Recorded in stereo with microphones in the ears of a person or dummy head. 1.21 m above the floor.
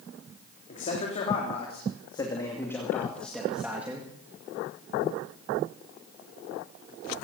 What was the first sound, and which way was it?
A man speaking, 35° left (ahead or behind).